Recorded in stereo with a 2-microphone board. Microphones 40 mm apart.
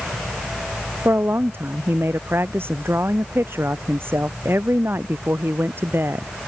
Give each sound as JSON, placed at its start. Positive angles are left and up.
{"t": 1.1, "sound": "a woman speaking", "side_deg": -70}